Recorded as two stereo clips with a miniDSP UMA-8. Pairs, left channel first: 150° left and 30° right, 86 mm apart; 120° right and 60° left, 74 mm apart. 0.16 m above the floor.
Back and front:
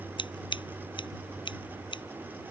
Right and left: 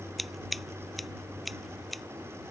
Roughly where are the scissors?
Behind left.